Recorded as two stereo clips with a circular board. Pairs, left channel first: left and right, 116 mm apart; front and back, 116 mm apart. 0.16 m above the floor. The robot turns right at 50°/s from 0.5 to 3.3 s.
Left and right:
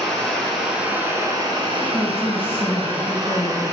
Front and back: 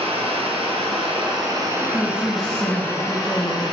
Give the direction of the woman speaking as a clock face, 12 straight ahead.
10 o'clock.